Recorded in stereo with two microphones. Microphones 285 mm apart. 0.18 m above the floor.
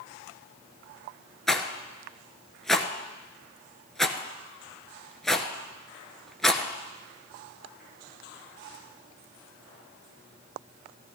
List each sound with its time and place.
1.5 s a rattle: centre (ahead or behind), 0.9 m